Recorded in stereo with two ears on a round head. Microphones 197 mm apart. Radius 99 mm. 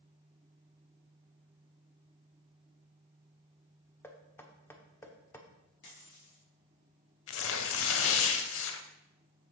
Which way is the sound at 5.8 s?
55° left (ahead or behind).